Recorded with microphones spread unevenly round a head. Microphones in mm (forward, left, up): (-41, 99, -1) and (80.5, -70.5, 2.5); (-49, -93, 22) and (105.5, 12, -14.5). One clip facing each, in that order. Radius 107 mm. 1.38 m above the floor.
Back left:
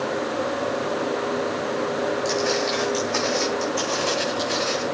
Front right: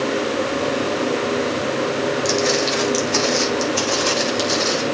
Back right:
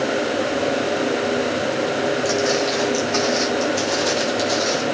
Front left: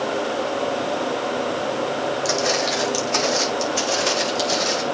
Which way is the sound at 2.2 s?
10° right.